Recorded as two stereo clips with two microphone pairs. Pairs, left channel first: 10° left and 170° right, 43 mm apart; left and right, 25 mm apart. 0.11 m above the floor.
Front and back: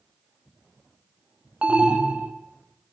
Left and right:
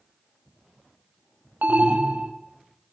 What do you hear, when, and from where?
1.6 s an alarm: 100° right, 2 m